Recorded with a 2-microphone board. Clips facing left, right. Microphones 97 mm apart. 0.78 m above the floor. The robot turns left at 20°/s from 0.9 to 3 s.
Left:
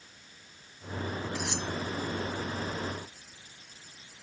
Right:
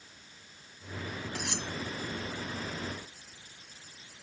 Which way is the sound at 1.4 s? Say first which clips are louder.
Left 3 dB; 60° right (ahead or behind).